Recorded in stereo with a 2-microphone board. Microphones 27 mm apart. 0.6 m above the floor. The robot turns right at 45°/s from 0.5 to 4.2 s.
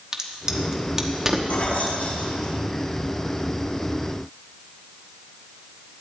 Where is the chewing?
I don't hear chewing.